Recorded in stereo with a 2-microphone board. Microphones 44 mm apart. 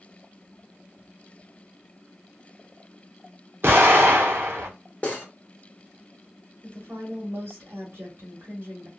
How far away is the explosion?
About 1.2 m.